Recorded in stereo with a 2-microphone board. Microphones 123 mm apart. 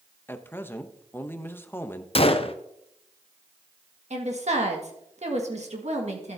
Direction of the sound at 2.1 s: 50° left (ahead or behind).